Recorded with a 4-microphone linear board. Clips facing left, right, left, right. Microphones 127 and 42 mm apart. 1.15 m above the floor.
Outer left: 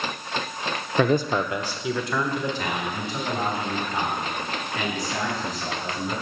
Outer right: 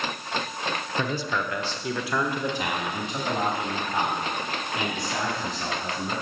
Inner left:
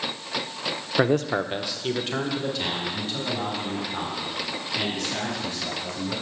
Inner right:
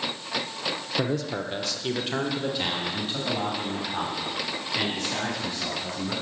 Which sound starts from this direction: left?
A man speaking, at 1.0 s.